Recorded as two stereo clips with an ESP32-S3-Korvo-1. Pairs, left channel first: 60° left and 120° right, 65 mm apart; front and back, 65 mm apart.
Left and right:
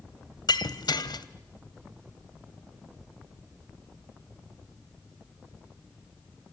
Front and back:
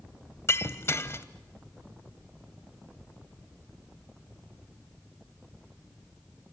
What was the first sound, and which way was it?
Breaking glass, 55° left.